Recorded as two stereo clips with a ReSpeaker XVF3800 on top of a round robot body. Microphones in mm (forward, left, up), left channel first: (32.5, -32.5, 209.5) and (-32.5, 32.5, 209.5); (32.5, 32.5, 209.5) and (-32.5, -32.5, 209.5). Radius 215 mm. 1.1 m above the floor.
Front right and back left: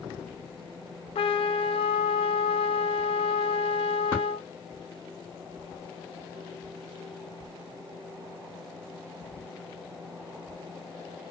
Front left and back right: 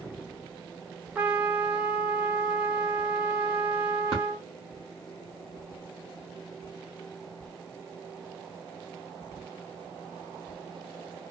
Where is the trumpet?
60° right, 0.6 m.